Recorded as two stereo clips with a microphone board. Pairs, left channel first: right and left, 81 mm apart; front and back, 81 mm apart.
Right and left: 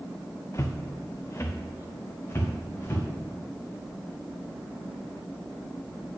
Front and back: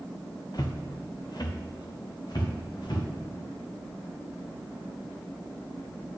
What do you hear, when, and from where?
0.5 s footsteps: 35° right, 1.1 m